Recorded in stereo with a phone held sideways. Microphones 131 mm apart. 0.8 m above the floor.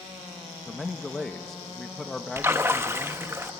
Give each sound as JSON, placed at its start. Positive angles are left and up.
{"t": 0.7, "sound": "a man speaking", "side_deg": 5, "distance_m": 0.8}
{"t": 2.4, "sound": "a splash", "side_deg": -20, "distance_m": 0.9}